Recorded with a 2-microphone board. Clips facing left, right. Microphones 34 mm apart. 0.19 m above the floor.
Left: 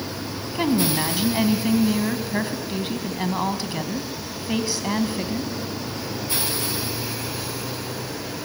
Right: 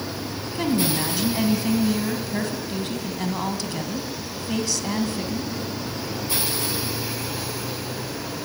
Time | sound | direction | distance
0.6 | a woman speaking | 20° left (ahead or behind) | 1.5 m